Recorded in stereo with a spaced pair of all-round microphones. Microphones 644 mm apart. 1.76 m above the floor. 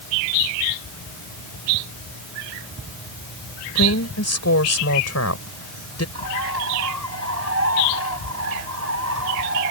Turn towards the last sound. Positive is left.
turn(degrees=-75)  # may be behind; listen again after turning